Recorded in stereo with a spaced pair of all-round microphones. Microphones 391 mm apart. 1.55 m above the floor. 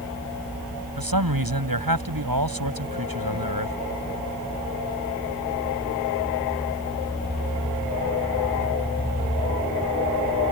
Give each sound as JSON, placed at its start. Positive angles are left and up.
{"t": 1.0, "sound": "a man speaking", "side_deg": -60}